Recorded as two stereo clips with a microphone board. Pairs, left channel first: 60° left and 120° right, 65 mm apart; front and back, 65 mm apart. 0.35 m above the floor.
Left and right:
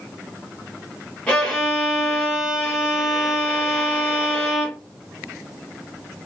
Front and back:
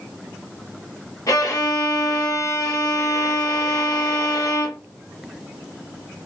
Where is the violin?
10° right, 1.2 m.